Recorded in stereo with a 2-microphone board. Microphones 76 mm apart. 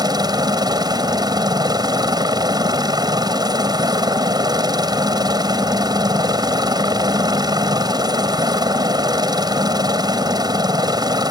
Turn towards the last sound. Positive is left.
turn(degrees=-60)  # may be behind; listen again after turning